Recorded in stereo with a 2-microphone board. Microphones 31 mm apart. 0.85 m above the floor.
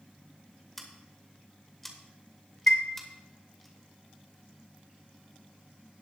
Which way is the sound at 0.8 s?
5° left (ahead or behind).